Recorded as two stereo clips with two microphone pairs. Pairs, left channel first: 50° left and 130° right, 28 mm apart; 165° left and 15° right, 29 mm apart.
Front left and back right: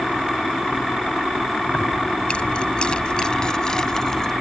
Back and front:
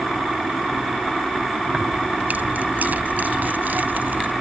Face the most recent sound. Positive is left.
turn(degrees=-20)